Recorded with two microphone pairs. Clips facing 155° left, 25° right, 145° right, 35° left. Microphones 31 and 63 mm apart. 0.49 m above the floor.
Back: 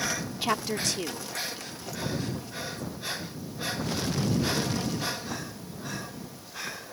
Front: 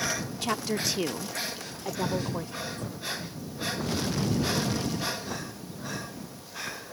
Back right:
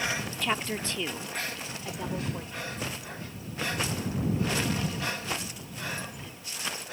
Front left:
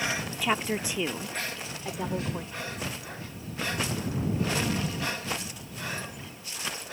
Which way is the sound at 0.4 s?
105° left.